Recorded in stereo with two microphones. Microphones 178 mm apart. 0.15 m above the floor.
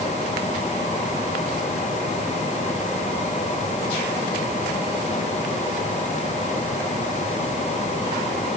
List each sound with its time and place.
Only background noise.